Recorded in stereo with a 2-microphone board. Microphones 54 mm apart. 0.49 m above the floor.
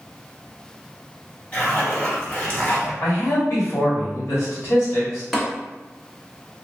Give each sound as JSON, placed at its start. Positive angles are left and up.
{"t": 1.5, "sound": "a zipper", "side_deg": 25, "distance_m": 0.9}
{"t": 3.0, "sound": "a man speaking", "side_deg": 65, "distance_m": 1.6}
{"t": 5.3, "sound": "tapping", "side_deg": 5, "distance_m": 1.5}